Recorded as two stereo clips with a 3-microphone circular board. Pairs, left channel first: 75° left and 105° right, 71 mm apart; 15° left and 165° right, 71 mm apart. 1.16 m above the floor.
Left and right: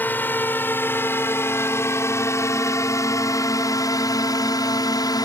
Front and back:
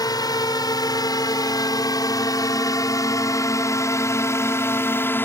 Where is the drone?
15° left; by 5.3 s 70° left.